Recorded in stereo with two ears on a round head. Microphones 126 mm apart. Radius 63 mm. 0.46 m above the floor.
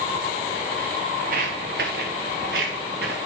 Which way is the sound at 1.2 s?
60° right (ahead or behind).